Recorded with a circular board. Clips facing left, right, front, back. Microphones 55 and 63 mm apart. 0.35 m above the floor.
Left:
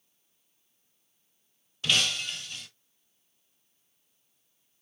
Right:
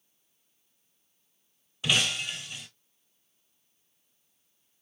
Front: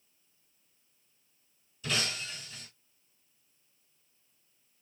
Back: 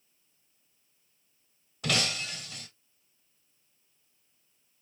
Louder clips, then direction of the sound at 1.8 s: Even, back 4 dB; 170° right.